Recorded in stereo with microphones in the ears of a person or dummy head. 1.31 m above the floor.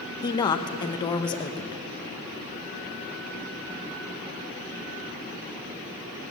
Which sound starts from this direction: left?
A woman speaking, at 0.2 s.